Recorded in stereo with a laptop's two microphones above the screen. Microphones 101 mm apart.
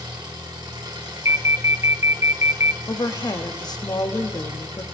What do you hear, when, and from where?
0.0 s an engine running: 50° right (ahead or behind), 7.5 m
1.2 s an alarm: 30° right (ahead or behind), 0.8 m
2.9 s a woman speaking: 45° left (ahead or behind), 1.9 m